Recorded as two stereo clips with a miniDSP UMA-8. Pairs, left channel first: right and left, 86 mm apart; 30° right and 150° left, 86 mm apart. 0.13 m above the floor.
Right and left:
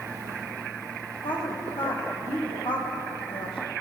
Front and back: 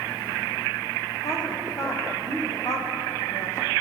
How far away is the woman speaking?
About 8.5 m.